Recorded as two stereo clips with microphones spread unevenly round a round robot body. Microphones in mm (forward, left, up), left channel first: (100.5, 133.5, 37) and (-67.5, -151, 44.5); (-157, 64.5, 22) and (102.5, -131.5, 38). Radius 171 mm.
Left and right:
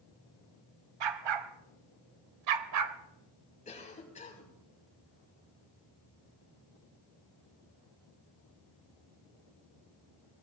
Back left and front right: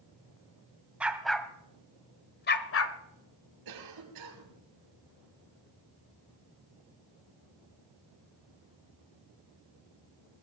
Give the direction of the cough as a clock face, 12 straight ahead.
12 o'clock.